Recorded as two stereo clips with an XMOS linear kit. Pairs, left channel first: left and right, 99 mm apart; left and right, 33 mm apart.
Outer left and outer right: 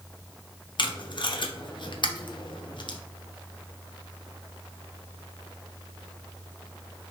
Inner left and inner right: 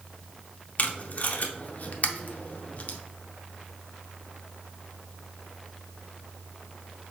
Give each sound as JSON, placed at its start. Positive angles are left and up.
{"t": 0.8, "sound": "tape being pulled", "side_deg": 55, "distance_m": 0.6}